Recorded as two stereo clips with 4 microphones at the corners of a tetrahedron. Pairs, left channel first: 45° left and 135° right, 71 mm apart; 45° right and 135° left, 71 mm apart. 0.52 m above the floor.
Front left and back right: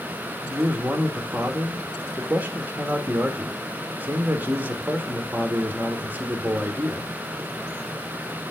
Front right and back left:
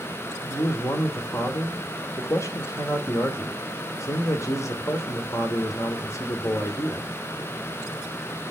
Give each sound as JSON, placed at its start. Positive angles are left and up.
{"t": 0.4, "sound": "a man speaking", "azimuth_deg": -75, "distance_m": 1.5}